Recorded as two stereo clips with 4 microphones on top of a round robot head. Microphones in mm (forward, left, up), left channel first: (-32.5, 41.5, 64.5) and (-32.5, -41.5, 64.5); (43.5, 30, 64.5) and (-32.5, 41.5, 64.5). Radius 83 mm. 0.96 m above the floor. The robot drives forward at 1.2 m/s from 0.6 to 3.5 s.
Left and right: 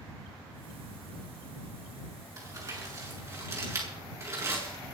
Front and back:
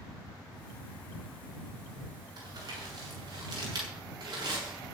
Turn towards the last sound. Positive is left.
turn(degrees=-145)